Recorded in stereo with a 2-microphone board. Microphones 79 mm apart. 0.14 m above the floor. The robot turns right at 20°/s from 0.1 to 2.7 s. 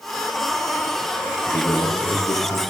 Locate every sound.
1.5 s a man speaking: 45° left (ahead or behind), 2.5 m; by 2.6 s 55° left (ahead or behind), 2.5 m